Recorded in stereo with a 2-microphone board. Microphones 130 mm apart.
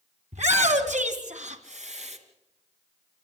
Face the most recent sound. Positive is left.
turn(degrees=-60)  # may be behind; listen again after turning